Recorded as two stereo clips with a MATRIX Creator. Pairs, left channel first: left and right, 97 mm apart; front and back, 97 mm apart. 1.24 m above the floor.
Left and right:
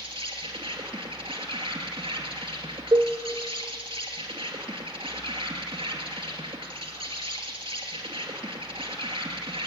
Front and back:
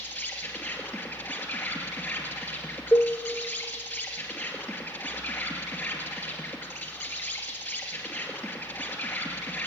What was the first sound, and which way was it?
An insect, 65° right.